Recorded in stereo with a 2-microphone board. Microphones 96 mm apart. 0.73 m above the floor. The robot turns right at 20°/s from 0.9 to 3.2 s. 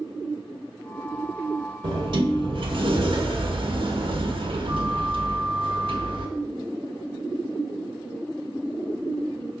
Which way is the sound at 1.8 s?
50° right (ahead or behind).